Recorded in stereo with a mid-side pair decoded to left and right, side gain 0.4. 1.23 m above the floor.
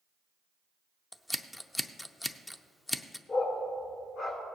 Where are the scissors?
15° left, 0.6 m.